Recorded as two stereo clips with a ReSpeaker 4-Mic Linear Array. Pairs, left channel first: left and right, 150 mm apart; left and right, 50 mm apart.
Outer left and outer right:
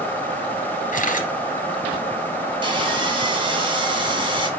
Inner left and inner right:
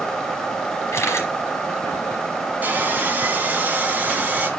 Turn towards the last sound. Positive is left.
turn(degrees=-35)  # may be behind; listen again after turning